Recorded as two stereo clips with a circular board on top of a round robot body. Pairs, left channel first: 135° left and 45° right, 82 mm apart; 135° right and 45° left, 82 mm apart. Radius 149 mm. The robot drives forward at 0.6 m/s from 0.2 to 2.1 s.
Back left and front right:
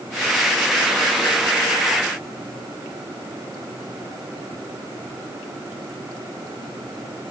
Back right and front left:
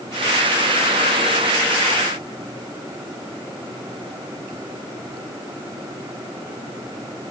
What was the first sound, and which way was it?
Only background noise.